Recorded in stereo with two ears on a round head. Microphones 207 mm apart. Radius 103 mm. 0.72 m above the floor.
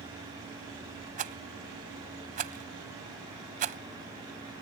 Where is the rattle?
35° right (ahead or behind).